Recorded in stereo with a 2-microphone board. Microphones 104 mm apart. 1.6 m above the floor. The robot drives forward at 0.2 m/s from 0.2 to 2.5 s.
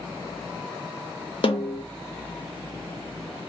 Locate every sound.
1.4 s a snare drum: 60° left (ahead or behind), 0.5 m; by 1.8 s 55° left (ahead or behind), 0.5 m